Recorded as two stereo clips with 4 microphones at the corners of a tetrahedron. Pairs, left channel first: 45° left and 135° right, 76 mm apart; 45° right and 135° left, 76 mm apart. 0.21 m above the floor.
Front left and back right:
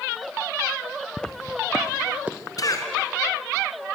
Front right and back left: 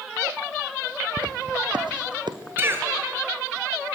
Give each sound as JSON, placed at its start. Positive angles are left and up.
{"t": 1.2, "sound": "footsteps", "azimuth_deg": 125, "distance_m": 1.5}
{"t": 2.6, "sound": "a cough", "azimuth_deg": 75, "distance_m": 2.5}